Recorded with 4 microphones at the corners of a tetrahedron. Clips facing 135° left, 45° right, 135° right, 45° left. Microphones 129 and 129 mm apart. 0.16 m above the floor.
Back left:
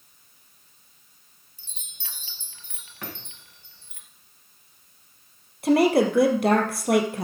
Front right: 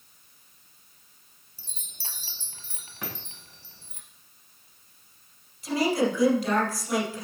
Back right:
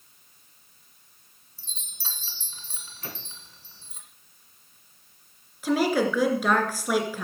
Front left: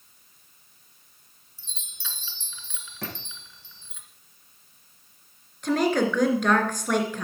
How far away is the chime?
About 1.7 m.